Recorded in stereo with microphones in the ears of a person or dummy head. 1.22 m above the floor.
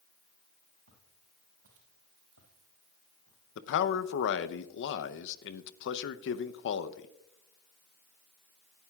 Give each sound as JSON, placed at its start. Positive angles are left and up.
{"t": 0.9, "sound": "footsteps", "side_deg": -60, "distance_m": 4.5}
{"t": 3.5, "sound": "a man speaking", "side_deg": 70, "distance_m": 0.8}